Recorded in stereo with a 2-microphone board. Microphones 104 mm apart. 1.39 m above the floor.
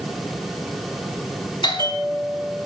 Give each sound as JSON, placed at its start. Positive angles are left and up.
{"t": 1.6, "sound": "a bell", "side_deg": 50, "distance_m": 5.0}